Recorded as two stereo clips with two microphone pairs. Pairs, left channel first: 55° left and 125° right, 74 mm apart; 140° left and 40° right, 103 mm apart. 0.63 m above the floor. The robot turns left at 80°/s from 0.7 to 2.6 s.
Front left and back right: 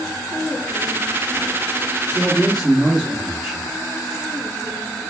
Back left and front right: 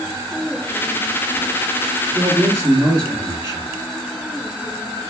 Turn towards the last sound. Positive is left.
turn(degrees=-35)